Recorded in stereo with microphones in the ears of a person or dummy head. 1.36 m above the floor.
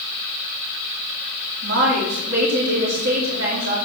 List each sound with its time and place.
1.6 s a woman speaking: 50° right (ahead or behind), 4 m